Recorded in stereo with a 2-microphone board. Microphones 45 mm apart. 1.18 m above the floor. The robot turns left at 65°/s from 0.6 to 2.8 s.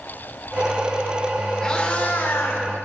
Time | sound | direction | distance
1.6 | a cat meowing | 165° left | 1.6 m